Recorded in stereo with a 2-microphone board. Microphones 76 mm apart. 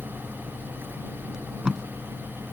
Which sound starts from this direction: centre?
Tape being pulled, at 1.3 s.